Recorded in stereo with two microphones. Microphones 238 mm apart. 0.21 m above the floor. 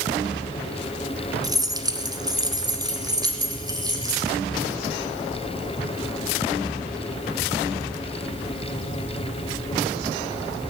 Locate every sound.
1.4 s keys jangling: 15° right (ahead or behind), 1.3 m